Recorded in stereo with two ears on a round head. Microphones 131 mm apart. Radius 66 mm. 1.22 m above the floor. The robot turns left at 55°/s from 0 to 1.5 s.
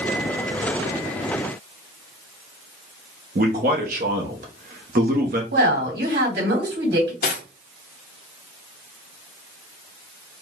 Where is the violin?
I don't hear a violin.